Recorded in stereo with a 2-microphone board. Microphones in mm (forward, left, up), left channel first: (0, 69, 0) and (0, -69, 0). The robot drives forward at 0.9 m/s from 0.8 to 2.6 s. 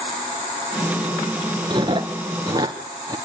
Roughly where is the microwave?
I don't hear a microwave.